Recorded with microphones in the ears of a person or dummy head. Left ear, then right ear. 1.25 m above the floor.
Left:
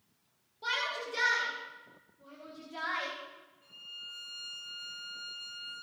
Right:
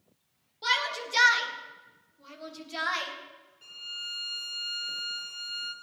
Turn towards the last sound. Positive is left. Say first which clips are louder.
# right 8 dB
turn(degrees=-65)  # may be behind; listen again after turning